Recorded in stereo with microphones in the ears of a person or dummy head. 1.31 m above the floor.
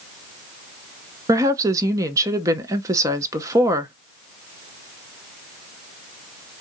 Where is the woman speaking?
20° right (ahead or behind), 0.7 m.